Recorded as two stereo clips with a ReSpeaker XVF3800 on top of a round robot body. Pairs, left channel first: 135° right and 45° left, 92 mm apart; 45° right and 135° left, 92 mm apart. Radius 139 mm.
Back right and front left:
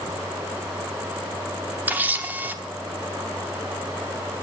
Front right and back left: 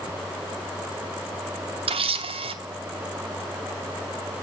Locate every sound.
1.9 s a camera shutter: 115° left, 1.1 m